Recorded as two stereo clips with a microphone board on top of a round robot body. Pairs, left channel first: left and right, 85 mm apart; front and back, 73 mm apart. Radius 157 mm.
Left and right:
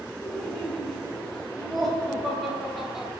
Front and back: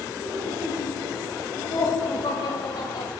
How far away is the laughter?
About 5 m.